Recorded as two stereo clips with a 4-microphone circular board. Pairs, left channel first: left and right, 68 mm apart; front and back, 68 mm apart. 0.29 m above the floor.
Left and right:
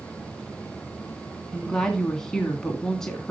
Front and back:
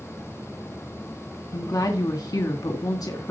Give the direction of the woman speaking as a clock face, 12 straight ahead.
12 o'clock.